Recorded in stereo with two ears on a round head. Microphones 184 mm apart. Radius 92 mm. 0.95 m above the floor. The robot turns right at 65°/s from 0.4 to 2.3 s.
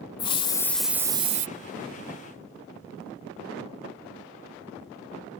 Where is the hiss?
155° left; by 1.5 s 140° right.